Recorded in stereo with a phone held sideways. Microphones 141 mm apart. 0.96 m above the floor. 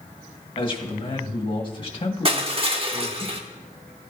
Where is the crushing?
40° right (ahead or behind), 1.0 m.